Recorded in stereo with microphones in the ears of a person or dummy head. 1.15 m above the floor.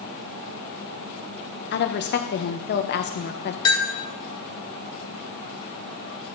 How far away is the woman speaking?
About 0.9 m.